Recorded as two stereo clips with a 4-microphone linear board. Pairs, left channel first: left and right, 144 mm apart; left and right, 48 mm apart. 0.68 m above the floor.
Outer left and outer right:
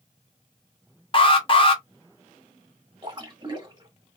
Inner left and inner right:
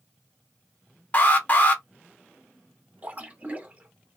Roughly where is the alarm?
Left.